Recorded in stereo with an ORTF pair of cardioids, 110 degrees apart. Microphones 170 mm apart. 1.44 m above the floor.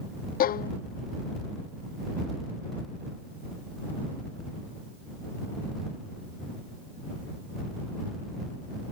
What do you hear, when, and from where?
0.4 s a violin: 60° left